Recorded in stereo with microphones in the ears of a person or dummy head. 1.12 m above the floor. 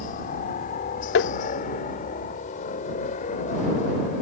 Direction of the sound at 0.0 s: 45° left (ahead or behind).